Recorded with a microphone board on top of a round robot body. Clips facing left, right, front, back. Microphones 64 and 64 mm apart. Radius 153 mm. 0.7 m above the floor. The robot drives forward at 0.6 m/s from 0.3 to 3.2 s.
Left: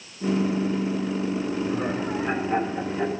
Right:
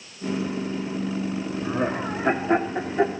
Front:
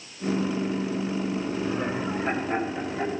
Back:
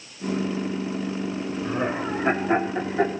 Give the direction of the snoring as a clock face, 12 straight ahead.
I don't hear snoring.